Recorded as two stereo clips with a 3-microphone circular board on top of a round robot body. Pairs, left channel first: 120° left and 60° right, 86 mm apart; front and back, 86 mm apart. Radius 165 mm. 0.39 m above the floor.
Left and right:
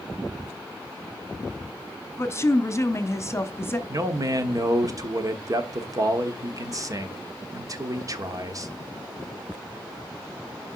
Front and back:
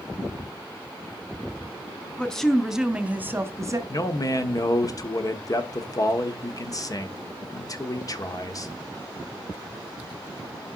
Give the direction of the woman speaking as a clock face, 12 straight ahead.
9 o'clock.